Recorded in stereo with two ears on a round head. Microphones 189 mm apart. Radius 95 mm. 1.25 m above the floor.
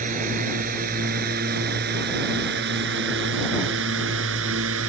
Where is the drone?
40° right (ahead or behind); by 4.9 s 70° right (ahead or behind).